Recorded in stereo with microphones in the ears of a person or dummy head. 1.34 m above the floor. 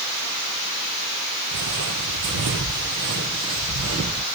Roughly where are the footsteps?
Right.